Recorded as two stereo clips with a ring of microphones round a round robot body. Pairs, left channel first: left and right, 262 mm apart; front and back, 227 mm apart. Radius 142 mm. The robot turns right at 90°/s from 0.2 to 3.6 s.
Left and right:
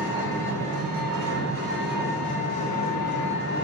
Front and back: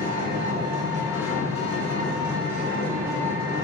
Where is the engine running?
160° right, 1.9 m; by 3.6 s 145° left, 1.9 m.